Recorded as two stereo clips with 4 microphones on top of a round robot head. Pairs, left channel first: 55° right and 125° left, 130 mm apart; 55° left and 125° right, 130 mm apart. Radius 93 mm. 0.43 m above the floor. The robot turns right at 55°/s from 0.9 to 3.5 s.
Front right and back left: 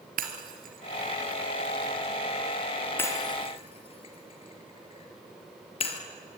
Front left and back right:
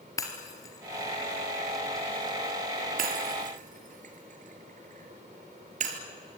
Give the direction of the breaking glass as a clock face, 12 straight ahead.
8 o'clock.